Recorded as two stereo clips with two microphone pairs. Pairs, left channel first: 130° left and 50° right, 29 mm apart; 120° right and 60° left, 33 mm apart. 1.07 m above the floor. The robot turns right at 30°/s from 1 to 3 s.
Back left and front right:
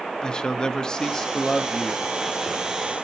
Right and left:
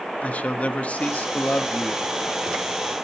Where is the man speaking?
160° right, 1.1 m; by 2.0 s 130° right, 1.1 m.